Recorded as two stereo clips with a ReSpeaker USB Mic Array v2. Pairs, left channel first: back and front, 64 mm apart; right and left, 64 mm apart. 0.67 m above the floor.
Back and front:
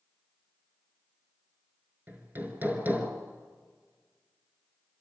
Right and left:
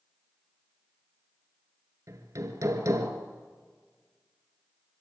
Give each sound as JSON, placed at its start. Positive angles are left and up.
{"t": 2.1, "sound": "hammering", "azimuth_deg": 60, "distance_m": 4.0}